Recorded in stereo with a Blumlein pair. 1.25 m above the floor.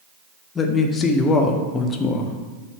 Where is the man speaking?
20° left, 0.8 m.